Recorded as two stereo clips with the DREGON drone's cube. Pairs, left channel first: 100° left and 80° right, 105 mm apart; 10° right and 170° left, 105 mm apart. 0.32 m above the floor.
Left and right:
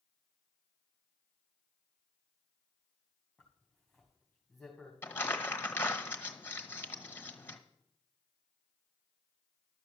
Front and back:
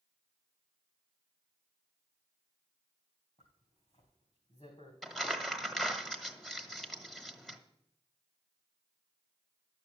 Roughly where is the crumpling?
Left.